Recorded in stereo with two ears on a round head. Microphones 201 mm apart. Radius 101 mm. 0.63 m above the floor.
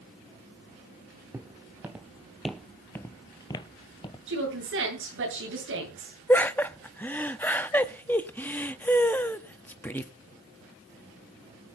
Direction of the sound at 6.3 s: 10° left (ahead or behind).